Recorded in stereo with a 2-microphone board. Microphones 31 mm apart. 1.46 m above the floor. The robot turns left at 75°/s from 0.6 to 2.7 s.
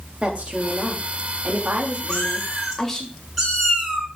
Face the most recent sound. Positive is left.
turn(degrees=0)